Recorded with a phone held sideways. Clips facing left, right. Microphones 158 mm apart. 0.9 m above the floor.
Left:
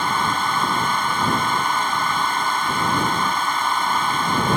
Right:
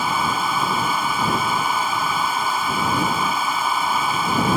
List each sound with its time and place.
0.0 s a fan: 5° right (ahead or behind)